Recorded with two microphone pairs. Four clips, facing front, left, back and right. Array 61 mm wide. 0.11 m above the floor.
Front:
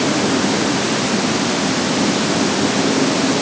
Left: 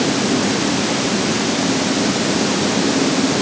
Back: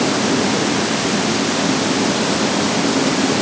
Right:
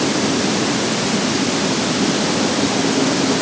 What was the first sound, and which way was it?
Only background noise.